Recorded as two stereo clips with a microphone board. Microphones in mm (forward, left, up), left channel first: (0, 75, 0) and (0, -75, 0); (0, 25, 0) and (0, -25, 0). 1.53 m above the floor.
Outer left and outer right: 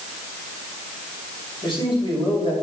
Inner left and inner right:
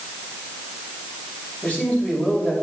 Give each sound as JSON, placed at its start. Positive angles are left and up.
{"t": 1.6, "sound": "a man speaking", "side_deg": 30, "distance_m": 5.5}